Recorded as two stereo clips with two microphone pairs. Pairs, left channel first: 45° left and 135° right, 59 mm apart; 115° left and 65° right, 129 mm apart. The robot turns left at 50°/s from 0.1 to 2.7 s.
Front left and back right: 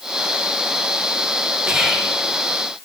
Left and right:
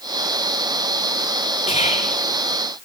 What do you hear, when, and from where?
1.7 s whispering: 150° left, 4 m; by 2.2 s 125° left, 4 m